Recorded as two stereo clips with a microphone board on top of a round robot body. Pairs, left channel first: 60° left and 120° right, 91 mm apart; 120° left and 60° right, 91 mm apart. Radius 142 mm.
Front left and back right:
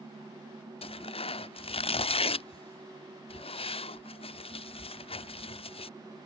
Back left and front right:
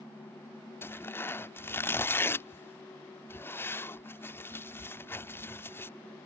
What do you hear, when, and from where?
0.8 s tearing paper: 55° left